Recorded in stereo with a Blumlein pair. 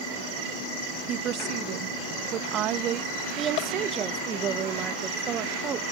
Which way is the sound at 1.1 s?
30° right.